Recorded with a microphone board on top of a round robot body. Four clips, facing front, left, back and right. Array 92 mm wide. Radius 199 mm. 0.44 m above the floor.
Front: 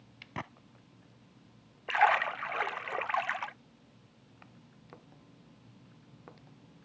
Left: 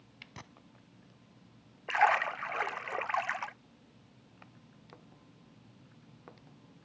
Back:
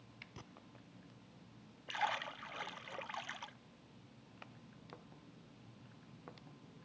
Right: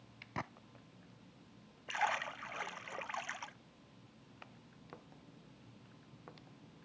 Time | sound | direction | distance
0.4 | a gunshot | 35° right | ?
1.9 | a splash | 40° left | ?